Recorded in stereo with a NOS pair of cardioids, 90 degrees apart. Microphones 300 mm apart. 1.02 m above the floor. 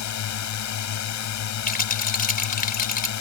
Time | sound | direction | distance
0.0 | a drone | 65° left | ?
1.7 | a rattle | 30° left | ?